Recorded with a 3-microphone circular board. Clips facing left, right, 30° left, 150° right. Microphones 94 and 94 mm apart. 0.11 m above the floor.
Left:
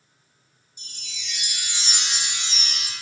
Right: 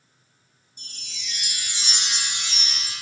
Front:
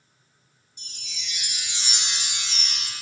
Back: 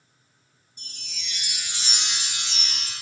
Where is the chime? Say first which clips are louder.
Even, even; 120° right, 1.7 m.